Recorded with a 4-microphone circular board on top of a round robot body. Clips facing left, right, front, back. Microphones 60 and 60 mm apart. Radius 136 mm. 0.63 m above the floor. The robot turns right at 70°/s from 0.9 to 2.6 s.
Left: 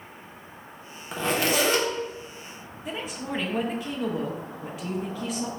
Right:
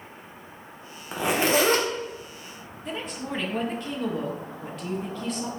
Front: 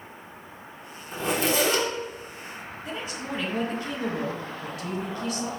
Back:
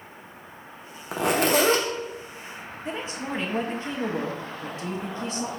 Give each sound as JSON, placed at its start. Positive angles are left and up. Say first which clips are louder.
{"t": 1.1, "sound": "a zipper", "louder": "right 2 dB, back 4 dB", "azimuth_deg": -175, "distance_m": 0.7}
{"t": 2.9, "sound": "a woman speaking", "louder": "even, back 2 dB", "azimuth_deg": 170, "distance_m": 0.9}